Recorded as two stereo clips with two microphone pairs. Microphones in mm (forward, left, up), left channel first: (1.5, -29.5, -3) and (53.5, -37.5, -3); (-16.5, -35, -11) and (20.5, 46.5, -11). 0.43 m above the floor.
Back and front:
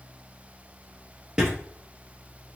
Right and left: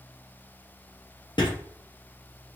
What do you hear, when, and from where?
1.4 s writing: 85° right, 3 m